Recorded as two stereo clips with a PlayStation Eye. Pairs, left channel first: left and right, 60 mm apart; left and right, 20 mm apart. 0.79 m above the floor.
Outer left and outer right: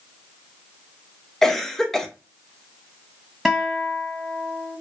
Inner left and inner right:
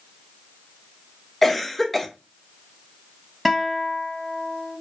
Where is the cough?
5° left (ahead or behind), 0.5 m.